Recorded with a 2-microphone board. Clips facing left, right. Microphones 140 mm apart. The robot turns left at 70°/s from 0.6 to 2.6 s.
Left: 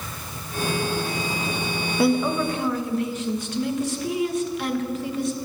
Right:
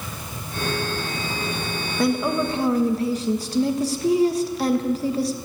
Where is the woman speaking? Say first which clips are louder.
Left 1 dB; 10° left, 1.5 m; by 5.3 s 35° right, 1.5 m.